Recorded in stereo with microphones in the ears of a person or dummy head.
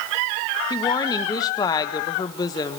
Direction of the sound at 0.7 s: 20° left (ahead or behind).